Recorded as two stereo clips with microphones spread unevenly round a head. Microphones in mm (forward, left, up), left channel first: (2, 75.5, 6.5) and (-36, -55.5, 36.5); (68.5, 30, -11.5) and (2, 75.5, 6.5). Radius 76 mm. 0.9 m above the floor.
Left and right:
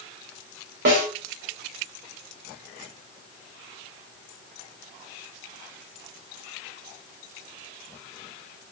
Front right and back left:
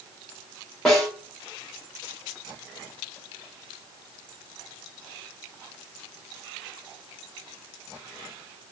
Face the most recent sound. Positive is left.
turn(degrees=-115)